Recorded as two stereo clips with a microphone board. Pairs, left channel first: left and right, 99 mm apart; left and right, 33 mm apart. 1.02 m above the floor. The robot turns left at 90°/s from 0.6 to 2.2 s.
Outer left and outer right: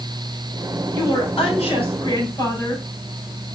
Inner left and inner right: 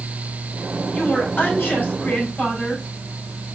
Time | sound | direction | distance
0.9 | a woman speaking | 155° left | 4.5 m